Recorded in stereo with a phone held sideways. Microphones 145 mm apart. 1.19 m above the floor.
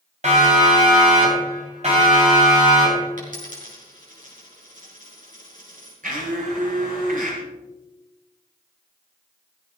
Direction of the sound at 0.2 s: 55° right (ahead or behind).